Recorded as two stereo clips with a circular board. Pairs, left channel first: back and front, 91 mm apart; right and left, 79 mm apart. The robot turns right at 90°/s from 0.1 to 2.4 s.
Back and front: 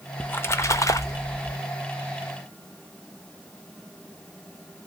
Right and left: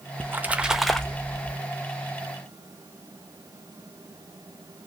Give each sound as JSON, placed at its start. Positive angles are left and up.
{"t": 0.2, "sound": "a splash", "azimuth_deg": 120, "distance_m": 0.5}